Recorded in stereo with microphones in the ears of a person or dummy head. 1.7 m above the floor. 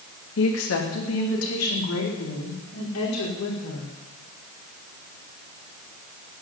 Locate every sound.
0.4 s a woman speaking: 70° left (ahead or behind), 2.5 m